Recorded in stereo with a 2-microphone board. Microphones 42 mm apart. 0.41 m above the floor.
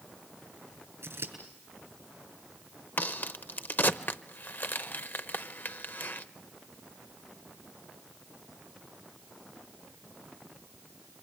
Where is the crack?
55° left (ahead or behind), 0.7 m.